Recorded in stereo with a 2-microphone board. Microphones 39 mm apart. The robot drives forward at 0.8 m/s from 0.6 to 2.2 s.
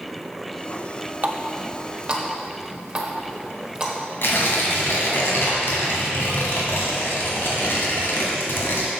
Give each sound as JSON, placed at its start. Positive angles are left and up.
{"t": 1.2, "sound": "a running tap", "side_deg": -45, "distance_m": 0.5}
{"t": 4.2, "sound": "tearing paper", "side_deg": 75, "distance_m": 1.8}